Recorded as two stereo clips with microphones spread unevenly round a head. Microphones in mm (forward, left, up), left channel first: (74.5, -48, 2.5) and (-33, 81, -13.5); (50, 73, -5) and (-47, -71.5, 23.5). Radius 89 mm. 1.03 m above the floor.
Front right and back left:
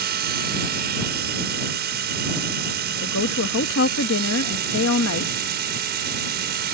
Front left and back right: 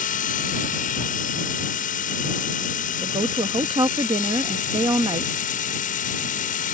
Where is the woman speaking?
55° right.